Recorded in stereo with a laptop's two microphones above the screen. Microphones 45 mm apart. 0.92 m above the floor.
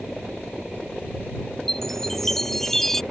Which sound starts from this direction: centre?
A chime, at 1.7 s.